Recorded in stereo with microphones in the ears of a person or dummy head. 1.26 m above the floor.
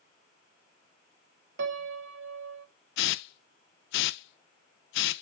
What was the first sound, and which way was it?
A piano, 65° right (ahead or behind).